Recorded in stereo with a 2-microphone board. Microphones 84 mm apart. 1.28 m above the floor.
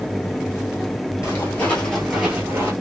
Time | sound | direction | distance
1.2 | footsteps | 30° left (ahead or behind) | 1.4 m